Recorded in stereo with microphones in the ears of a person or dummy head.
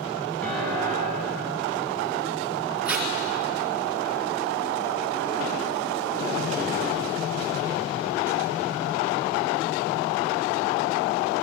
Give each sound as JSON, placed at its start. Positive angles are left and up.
{"t": 0.4, "sound": "a piano", "side_deg": 0, "distance_m": 6.5}
{"t": 2.9, "sound": "tape being pulled", "side_deg": -10, "distance_m": 3.0}